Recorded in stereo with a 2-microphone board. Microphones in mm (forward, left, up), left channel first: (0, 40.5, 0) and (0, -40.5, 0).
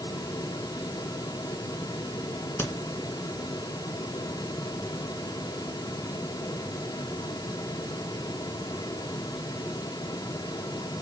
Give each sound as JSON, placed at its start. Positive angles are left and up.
{"t": 2.6, "sound": "a crack", "side_deg": 30, "distance_m": 2.0}